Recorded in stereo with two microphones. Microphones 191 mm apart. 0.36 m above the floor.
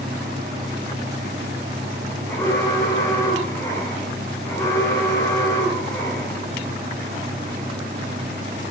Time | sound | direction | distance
2.3 | an alarm | 15° left (ahead or behind) | 7 m